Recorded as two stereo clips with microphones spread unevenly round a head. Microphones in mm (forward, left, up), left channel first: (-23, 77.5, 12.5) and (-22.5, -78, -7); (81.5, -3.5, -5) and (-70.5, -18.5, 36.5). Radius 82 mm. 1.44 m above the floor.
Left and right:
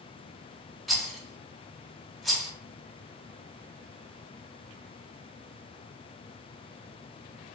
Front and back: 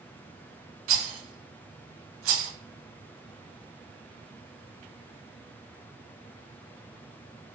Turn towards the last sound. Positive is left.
turn(degrees=180)